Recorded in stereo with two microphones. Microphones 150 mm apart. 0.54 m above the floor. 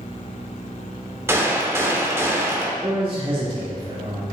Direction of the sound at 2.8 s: 35° right (ahead or behind).